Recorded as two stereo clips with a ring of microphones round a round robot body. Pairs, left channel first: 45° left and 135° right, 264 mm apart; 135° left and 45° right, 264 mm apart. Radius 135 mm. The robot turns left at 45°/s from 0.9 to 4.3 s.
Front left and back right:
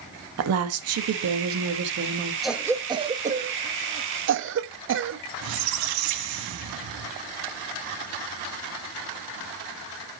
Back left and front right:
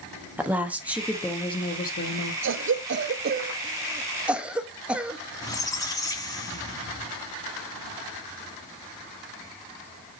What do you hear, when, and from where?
0.4 s a woman speaking: 130° right, 1.1 m; by 2.3 s 165° left, 1.1 m
2.4 s a cough: 45° right, 0.8 m; by 5.2 s 130° right, 0.8 m
5.4 s a squeak: 150° right, 1.0 m